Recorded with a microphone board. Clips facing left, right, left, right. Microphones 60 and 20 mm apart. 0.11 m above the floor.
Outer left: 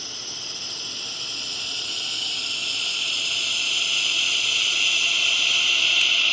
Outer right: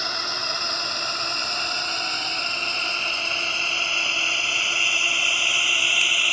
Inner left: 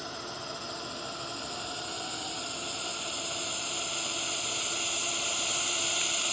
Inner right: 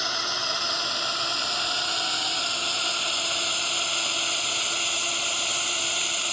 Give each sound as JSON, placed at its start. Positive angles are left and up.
{"t": 0.0, "sound": "a drone", "side_deg": -60}